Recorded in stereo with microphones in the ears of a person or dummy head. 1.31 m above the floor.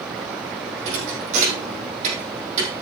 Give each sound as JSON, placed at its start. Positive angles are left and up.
{"t": 0.8, "sound": "a thud", "side_deg": -45, "distance_m": 3.5}